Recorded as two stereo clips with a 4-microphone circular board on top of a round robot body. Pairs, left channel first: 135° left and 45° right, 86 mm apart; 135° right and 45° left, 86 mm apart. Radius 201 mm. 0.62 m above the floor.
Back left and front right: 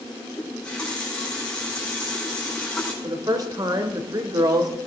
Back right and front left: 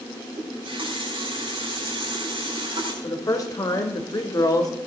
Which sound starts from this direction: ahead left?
A running tap, at 0.4 s.